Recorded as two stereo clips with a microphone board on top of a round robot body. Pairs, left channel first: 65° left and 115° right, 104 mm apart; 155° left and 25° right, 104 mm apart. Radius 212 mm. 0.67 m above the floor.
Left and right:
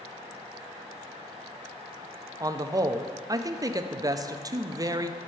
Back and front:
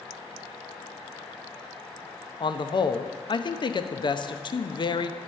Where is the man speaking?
165° right, 0.8 m.